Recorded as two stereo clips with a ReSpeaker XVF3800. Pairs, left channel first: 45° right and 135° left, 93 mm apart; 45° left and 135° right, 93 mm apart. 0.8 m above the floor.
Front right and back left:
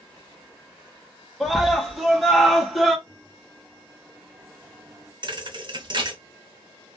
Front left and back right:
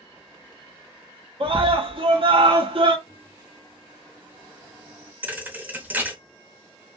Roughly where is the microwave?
Behind.